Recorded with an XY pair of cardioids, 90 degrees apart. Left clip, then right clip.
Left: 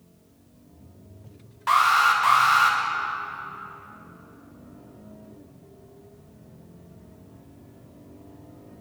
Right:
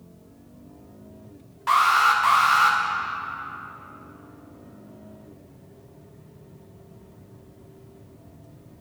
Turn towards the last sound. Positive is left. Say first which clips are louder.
# even
turn(degrees=15)